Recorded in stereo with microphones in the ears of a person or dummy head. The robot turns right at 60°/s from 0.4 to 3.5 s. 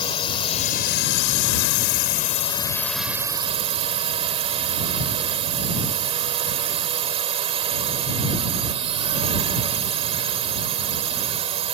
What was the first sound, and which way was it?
A drone, 25° left.